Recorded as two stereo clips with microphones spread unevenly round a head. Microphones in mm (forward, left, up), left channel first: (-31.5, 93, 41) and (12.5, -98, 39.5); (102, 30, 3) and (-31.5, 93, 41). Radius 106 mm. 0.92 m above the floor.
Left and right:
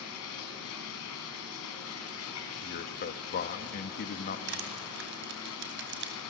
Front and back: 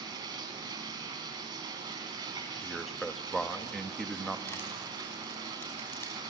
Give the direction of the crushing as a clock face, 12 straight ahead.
4 o'clock.